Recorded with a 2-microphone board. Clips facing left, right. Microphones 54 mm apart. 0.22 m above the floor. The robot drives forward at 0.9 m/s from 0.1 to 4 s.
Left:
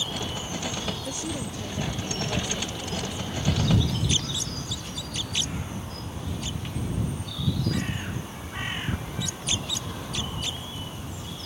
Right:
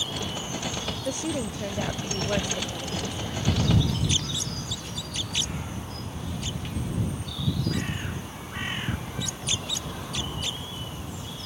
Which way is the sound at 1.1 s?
35° right (ahead or behind).